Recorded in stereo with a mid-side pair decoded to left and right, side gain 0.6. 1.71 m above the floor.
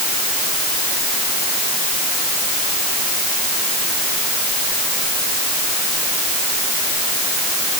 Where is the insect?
No insect in this recording.